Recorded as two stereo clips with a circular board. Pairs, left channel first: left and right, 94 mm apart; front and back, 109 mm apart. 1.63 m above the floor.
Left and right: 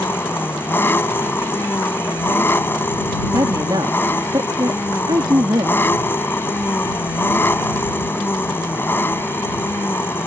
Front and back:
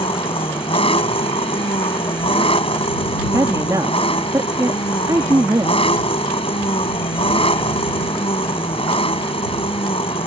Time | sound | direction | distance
0.0 | an engine running | 25° left | ?
3.3 | a woman speaking | 125° right | ?